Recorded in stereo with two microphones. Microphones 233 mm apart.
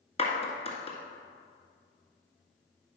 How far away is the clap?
About 1.6 m.